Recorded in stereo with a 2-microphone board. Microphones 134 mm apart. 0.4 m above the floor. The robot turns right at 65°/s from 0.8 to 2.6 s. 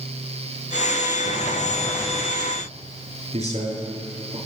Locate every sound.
1.2 s a sliding door: 105° left, 6 m; by 2.4 s 175° right, 6 m
3.3 s a man speaking: 60° right (ahead or behind), 6 m